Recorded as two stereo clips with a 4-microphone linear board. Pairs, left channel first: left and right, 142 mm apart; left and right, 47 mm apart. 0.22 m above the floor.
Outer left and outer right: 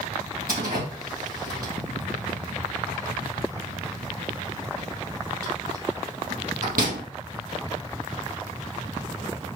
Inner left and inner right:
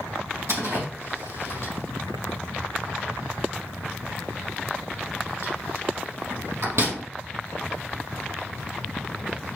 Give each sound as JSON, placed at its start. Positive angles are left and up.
{"t": 0.5, "sound": "a door slam", "side_deg": -80, "distance_m": 5.0}